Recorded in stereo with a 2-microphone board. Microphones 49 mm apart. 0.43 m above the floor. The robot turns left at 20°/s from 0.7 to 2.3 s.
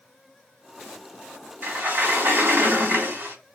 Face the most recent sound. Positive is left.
turn(degrees=-50)  # may be behind; listen again after turning